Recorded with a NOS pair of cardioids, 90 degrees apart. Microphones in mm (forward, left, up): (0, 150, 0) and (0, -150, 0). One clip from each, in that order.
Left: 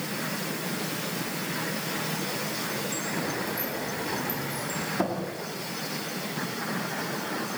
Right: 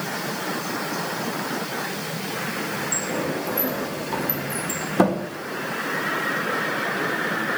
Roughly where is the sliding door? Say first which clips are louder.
Right 5 dB; ahead right.